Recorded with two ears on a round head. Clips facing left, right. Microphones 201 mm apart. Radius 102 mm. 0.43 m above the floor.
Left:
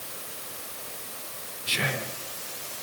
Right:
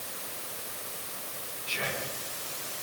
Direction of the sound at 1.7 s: 55° left (ahead or behind).